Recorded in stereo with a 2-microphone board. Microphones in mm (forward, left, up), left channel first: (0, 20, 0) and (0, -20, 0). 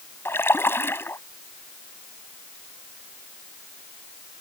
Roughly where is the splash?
Left.